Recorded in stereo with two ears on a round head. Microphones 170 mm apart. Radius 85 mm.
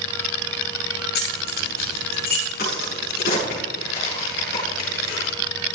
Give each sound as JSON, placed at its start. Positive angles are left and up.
{"t": 1.1, "sound": "keys jangling", "side_deg": 55, "distance_m": 6.0}
{"t": 2.6, "sound": "a crack", "side_deg": 55, "distance_m": 7.0}